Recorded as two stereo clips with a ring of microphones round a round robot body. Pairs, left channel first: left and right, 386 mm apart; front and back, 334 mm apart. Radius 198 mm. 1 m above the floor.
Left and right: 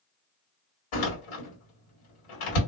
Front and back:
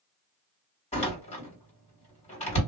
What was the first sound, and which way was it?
A door slam, 75° left.